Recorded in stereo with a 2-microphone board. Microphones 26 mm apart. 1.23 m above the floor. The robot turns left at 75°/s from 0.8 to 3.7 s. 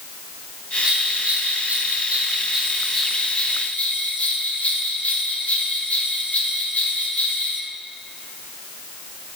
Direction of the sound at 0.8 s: 30° right.